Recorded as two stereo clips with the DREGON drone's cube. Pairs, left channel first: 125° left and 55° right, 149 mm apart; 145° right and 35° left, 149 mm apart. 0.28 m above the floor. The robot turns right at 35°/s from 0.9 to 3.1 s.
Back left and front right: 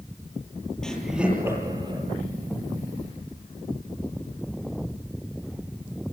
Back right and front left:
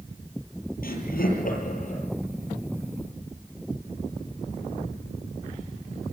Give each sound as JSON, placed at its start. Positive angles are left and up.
{"t": 0.8, "sound": "laughter", "azimuth_deg": -150, "distance_m": 8.5}